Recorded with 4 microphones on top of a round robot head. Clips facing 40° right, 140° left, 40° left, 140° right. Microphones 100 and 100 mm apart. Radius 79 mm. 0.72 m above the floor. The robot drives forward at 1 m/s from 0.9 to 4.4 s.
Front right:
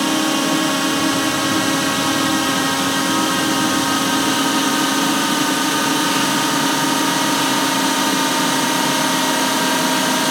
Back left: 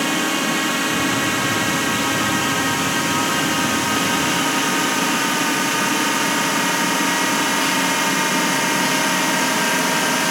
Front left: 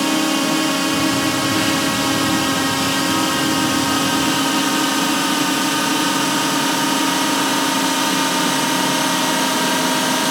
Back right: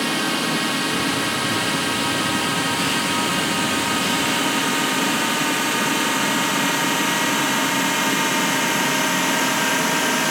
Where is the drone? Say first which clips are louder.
Front right 3 dB, front left 5 dB; 15° left; by 10.3 s 5° left.